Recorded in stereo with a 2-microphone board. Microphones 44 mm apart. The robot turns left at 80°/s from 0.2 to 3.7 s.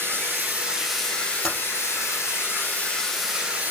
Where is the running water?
120° right, 3.5 m; by 3.7 s 40° right, 3.5 m.